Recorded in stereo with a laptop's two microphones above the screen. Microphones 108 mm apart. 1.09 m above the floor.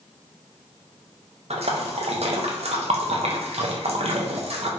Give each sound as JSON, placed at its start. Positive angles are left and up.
{"t": 1.5, "sound": "a splash", "side_deg": -75, "distance_m": 0.5}